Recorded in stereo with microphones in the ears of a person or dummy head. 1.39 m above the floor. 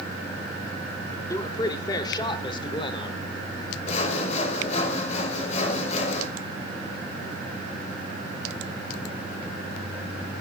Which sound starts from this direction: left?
Sawing, at 3.9 s.